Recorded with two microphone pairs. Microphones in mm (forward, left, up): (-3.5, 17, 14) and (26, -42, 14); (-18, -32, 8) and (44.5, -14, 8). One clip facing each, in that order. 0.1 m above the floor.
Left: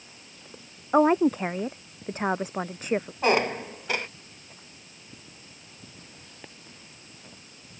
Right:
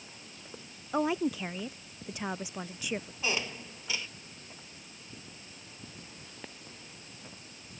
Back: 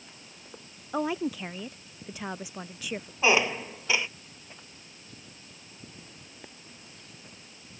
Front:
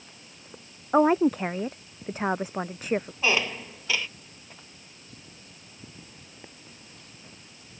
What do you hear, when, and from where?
0.9 s a woman speaking: 70° left
3.2 s a squeak: 130° left